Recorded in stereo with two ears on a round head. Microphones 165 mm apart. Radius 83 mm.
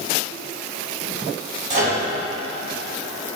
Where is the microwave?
40° right (ahead or behind), 1.9 m.